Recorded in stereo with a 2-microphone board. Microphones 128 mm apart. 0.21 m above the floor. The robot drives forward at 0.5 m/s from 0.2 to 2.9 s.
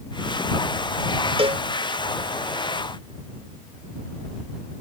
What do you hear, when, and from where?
1.4 s a cowbell: 45° right (ahead or behind)